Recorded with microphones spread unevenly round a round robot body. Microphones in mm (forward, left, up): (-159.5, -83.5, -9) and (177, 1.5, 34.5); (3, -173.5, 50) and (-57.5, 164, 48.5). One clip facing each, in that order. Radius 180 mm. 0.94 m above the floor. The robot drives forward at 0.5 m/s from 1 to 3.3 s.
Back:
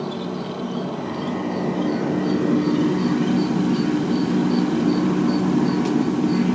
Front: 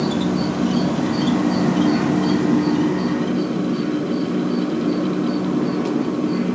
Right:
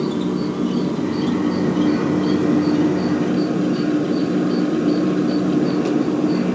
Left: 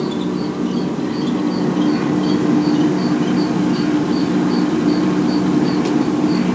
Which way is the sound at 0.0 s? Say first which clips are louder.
Front 8 dB, left 1 dB; 15° left.